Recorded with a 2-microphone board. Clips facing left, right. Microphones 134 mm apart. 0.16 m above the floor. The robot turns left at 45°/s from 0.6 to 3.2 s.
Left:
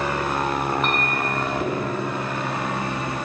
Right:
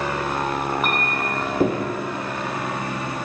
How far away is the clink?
About 3.5 m.